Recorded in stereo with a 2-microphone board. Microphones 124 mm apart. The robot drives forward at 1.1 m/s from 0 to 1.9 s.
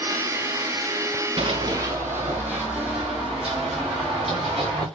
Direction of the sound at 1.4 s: 45° right (ahead or behind).